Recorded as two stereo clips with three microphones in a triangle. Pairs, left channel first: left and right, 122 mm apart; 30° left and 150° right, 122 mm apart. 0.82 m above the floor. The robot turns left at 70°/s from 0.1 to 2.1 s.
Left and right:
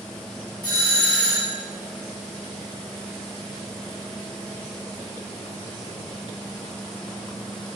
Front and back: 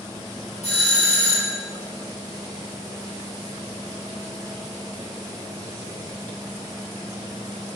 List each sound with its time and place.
0.6 s a doorbell: 45° left, 1.8 m; by 1.6 s 25° right, 1.8 m